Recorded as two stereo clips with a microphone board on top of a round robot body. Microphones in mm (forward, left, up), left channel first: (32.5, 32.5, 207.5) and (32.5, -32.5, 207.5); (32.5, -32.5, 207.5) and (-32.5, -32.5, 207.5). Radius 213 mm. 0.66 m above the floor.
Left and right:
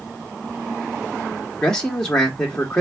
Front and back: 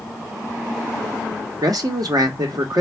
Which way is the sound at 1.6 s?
170° left.